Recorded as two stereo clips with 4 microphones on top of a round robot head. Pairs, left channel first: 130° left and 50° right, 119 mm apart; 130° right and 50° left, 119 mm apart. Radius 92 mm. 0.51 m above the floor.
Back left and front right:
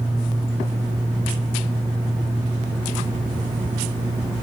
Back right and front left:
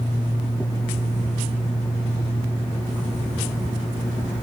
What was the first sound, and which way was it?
Only background noise.